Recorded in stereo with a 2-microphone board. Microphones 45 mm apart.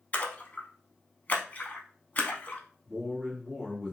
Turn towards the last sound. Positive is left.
turn(degrees=0)  # may be behind; listen again after turning